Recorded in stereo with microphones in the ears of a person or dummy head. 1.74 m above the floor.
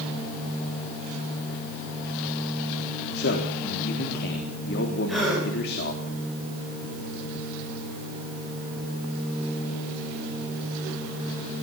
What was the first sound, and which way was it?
A man speaking, 55° left (ahead or behind).